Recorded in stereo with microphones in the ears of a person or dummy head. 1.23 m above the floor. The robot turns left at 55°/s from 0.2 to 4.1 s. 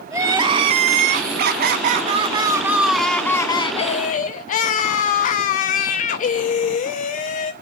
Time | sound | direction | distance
0.1 | crying | 20° right | 0.6 m